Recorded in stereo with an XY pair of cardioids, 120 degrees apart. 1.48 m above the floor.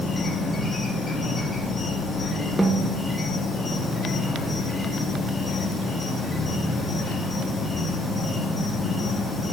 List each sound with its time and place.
0.0 s an insect: 25° left, 1.8 m
2.6 s a snare drum: 10° right, 0.9 m